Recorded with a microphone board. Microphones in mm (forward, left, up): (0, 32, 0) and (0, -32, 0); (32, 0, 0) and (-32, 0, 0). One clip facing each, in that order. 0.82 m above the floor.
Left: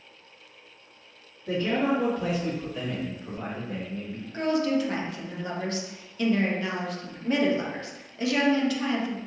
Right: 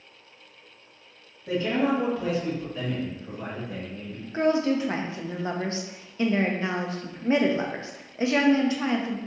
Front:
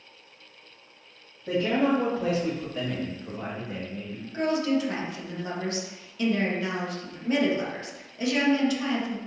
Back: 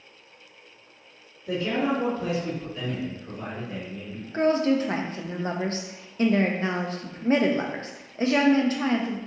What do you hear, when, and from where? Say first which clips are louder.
1.5 s a man speaking: right 1 dB, front 2 dB; 20° right, 1.8 m; by 4.2 s 75° left, 1.4 m
4.3 s a woman speaking: right 2 dB, back 4 dB; 145° right, 0.5 m